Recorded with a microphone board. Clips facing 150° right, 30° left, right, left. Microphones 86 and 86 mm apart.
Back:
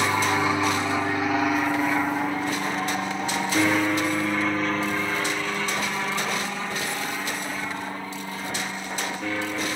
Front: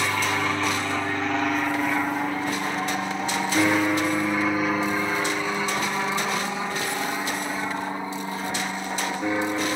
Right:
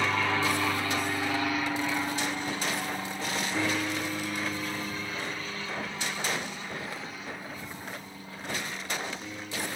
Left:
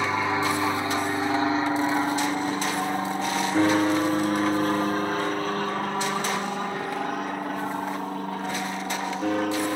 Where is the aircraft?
145° left; by 9.8 s 100° left.